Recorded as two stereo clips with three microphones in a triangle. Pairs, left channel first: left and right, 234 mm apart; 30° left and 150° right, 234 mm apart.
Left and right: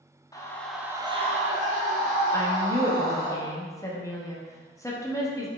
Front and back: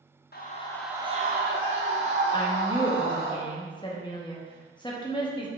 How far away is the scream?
About 0.7 m.